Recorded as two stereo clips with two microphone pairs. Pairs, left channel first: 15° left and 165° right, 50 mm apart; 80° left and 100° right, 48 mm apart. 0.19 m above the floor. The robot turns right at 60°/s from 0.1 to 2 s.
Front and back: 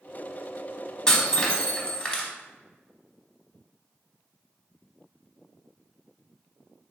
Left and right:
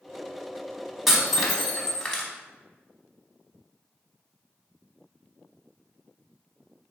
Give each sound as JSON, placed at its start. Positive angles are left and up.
{"t": 1.1, "sound": "breaking glass", "azimuth_deg": -20, "distance_m": 0.8}